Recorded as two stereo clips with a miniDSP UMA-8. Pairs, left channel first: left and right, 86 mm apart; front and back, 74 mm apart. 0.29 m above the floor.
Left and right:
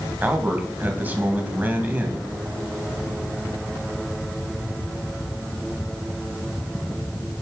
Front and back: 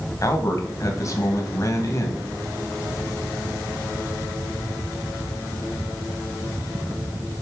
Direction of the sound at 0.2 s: 25° right.